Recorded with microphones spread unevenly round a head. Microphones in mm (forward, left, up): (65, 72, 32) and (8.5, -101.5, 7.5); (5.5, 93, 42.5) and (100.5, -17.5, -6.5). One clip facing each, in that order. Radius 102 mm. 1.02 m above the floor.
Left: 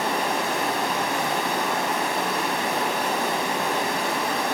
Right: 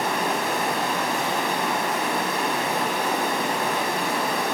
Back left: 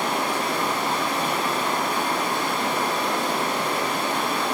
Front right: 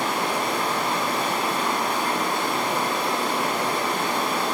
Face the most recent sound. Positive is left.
turn(degrees=-65)